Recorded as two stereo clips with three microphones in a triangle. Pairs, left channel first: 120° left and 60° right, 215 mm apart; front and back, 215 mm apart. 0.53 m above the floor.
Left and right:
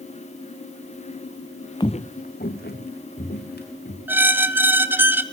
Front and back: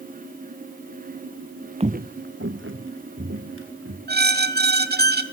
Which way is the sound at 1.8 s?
165° left.